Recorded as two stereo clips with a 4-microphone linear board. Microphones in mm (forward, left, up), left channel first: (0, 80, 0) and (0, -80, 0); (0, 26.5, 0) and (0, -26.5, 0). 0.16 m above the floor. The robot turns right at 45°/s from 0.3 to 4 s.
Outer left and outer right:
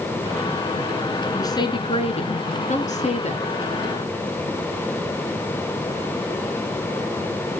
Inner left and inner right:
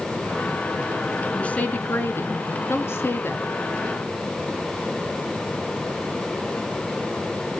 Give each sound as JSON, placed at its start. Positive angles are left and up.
{"t": 1.3, "sound": "a woman speaking", "azimuth_deg": 25, "distance_m": 2.0}